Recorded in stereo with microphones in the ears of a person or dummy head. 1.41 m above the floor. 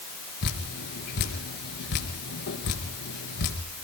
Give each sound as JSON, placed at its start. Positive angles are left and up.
{"t": 0.4, "sound": "dripping", "side_deg": 60, "distance_m": 3.5}